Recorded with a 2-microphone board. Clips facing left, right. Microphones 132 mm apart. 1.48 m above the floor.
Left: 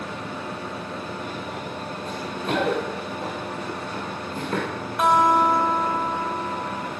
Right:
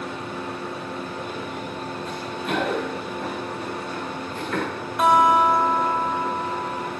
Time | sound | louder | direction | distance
2.1 | running footsteps | left 2 dB | 40° left (ahead or behind) | 6 m
5.0 | a guitar | right 1 dB | centre (ahead or behind) | 3 m